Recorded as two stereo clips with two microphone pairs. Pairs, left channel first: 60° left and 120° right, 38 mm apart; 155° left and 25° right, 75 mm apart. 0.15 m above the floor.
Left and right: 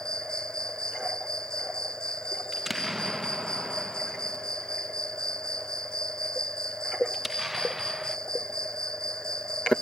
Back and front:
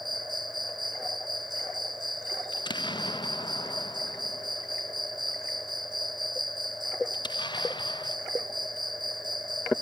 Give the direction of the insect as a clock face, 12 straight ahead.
12 o'clock.